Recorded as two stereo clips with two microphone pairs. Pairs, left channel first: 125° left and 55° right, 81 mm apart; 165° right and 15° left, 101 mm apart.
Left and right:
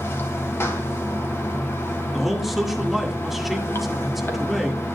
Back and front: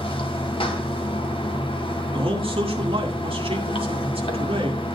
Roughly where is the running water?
Behind.